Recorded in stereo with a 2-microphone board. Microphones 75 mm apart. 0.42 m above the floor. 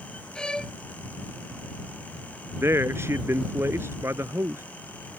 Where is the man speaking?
35° right (ahead or behind).